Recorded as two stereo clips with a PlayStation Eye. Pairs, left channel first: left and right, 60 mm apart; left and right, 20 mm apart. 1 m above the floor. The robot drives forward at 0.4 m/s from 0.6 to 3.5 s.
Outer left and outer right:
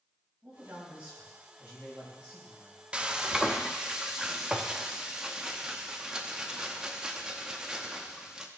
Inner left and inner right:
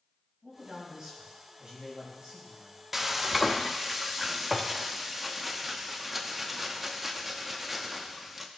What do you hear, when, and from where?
0.4 s a man speaking: 20° right (ahead or behind), 5.5 m; by 2.8 s 25° right (ahead or behind), 5 m
2.9 s frying: 15° right (ahead or behind), 0.6 m; by 8.5 s 10° right (ahead or behind), 0.8 m